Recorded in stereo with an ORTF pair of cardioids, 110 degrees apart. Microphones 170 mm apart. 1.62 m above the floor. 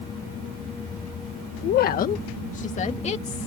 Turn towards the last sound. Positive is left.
turn(degrees=40)